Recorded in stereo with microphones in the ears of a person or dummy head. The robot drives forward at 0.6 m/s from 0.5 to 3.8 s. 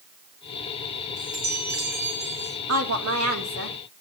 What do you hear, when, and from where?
1.2 s a chime: 85° right, 5.5 m; by 2.6 s 75° right (ahead or behind), 6 m
2.7 s a woman speaking: 85° right, 2.5 m; by 3.8 s 70° right (ahead or behind), 2.5 m